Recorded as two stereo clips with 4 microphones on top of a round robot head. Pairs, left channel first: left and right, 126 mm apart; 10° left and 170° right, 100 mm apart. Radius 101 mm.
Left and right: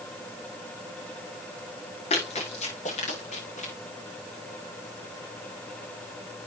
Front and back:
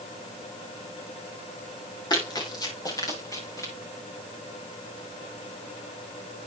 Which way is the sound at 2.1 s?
55° left.